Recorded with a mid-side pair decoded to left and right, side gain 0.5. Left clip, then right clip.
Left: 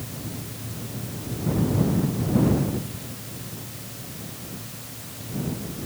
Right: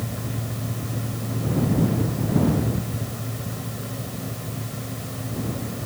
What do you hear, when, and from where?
0.0 s a fan: 60° right